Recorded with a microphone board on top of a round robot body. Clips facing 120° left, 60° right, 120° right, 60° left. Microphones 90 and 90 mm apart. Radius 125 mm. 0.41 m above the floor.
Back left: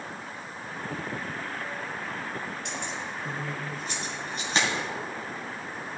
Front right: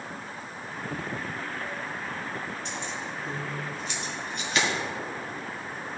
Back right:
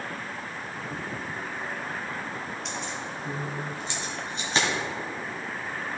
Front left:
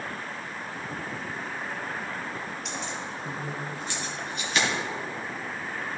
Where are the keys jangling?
150° left, 2 m; by 4.7 s 175° right, 2.5 m.